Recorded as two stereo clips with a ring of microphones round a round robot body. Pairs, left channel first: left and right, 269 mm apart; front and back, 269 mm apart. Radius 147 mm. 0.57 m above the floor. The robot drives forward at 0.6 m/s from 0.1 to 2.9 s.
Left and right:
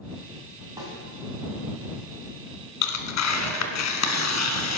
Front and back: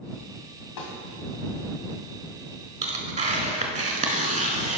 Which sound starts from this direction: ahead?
A snare drum, at 0.8 s.